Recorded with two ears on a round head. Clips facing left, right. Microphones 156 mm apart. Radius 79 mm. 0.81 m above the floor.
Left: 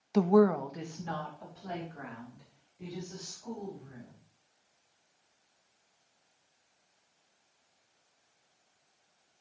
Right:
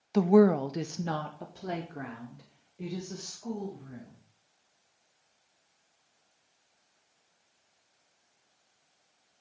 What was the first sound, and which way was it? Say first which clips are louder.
A woman speaking: right 3 dB; 5° left (ahead or behind).